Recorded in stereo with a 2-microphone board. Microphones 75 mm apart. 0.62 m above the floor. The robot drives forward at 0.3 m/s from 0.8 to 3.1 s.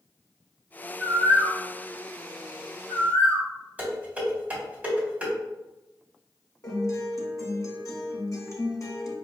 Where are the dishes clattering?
20° right (ahead or behind), 1.8 m.